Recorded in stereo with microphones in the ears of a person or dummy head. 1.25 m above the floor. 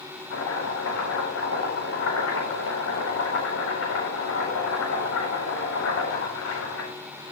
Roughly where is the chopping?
Left.